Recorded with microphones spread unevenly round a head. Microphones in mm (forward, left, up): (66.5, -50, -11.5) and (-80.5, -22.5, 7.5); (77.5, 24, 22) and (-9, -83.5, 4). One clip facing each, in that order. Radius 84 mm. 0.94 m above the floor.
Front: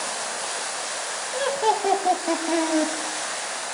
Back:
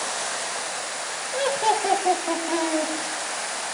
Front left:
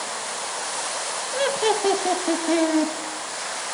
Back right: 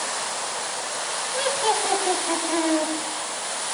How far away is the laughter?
About 0.7 m.